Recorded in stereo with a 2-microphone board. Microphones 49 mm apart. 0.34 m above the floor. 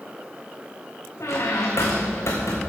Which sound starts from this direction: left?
A squeak, at 1.2 s.